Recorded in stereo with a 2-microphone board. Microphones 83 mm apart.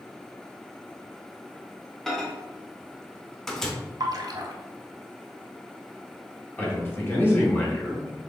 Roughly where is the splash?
Right.